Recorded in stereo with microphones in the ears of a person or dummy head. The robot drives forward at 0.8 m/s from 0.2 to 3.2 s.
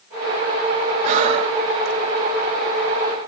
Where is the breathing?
35° right (ahead or behind), 1.0 m; by 2.0 s 25° right (ahead or behind), 1.3 m.